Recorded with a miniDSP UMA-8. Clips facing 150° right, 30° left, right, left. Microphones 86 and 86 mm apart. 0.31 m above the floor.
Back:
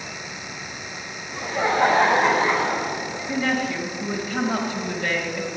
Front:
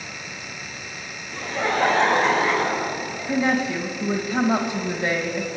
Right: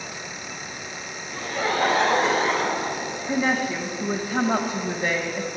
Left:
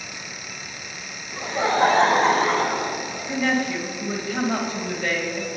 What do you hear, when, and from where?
1.3 s laughter: 150° left, 1.2 m; by 3.3 s 135° left, 4 m
3.3 s a woman speaking: 25° right, 1.2 m